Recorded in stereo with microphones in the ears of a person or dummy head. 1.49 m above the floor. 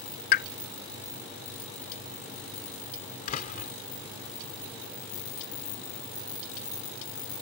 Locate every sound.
0.3 s a pop: 35° left (ahead or behind)
3.3 s a door slam: 45° left (ahead or behind)